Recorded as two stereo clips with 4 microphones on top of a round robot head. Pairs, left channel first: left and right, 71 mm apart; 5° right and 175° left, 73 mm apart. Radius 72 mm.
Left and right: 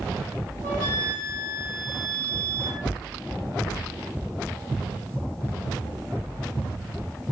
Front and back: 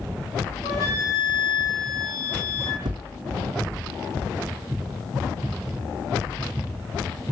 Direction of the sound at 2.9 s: 155° left.